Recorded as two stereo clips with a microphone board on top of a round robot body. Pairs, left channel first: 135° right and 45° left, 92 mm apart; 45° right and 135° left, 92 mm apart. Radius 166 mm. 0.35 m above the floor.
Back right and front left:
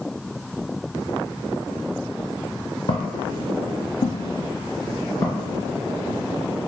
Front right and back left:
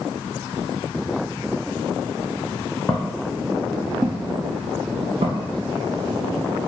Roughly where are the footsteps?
Behind right.